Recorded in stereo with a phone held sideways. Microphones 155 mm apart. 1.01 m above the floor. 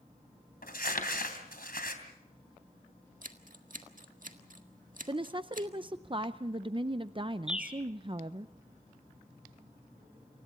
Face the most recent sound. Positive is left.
turn(degrees=-5)  # may be behind; listen again after turning